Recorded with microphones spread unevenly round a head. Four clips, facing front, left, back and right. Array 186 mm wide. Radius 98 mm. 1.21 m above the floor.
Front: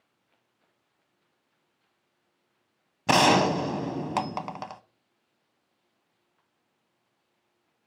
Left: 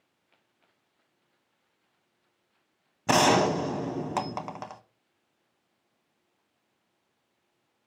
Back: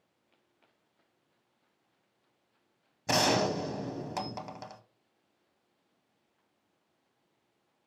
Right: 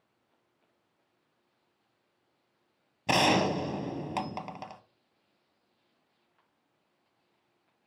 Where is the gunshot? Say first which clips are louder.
Left 4 dB, front 7 dB; 25° left, 0.8 m.